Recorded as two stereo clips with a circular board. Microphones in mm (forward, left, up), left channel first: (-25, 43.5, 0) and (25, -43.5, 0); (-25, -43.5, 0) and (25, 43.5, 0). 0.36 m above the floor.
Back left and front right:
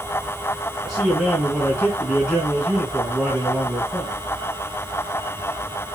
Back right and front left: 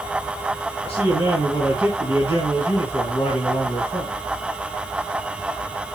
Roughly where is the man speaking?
Behind right.